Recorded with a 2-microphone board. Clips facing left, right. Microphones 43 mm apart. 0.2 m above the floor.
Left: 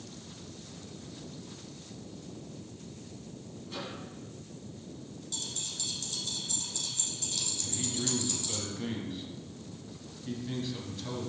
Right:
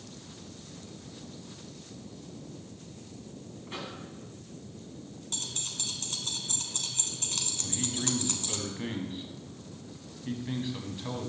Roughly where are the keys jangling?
Right.